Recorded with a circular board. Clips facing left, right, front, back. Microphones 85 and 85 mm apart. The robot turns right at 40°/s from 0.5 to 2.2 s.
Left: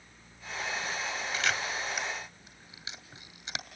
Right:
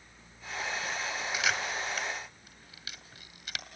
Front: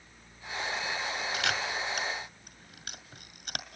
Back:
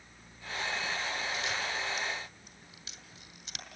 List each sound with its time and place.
1.3 s a camera shutter: 5° right, 2 m; by 3.7 s 30° left, 2 m